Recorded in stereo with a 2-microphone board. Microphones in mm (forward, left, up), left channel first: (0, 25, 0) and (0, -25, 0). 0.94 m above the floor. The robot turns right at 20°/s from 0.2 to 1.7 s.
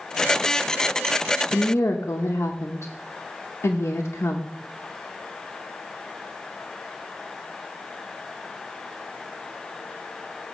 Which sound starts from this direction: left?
A woman speaking, at 1.5 s.